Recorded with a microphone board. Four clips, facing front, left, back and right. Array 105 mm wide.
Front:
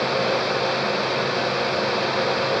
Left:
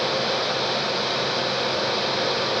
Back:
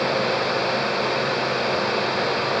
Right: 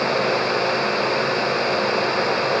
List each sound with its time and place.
Only background noise.